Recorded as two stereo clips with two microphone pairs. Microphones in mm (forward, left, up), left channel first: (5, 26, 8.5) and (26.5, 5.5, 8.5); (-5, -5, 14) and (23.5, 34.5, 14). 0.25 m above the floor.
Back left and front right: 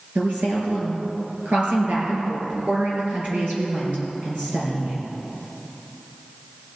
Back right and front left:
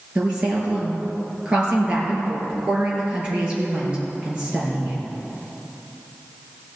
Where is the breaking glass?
No breaking glass in this recording.